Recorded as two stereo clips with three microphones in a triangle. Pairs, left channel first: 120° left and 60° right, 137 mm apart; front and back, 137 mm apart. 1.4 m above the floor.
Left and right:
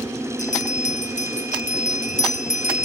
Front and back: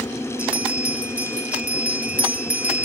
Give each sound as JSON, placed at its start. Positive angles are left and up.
{"t": 0.4, "sound": "a bell", "azimuth_deg": 100, "distance_m": 1.1}